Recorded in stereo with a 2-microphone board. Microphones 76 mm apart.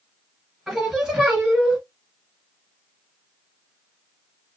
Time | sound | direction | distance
0.7 | singing | 10° right (ahead or behind) | 1.9 m